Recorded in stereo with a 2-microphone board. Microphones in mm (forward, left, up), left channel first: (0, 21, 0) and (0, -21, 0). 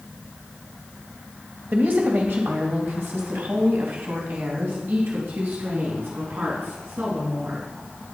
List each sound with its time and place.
1.7 s a woman speaking: 50° right (ahead or behind), 2.5 m; by 7.7 s 70° right (ahead or behind), 5.5 m